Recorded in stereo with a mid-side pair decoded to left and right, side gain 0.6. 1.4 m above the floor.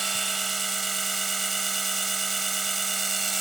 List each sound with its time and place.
0.0 s a machine running: 20° right